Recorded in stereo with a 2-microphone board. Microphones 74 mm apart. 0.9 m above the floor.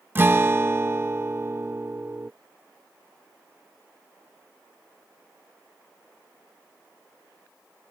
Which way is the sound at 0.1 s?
30° right (ahead or behind).